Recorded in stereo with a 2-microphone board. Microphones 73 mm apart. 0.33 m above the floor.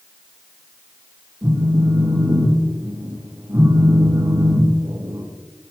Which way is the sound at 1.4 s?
50° right (ahead or behind).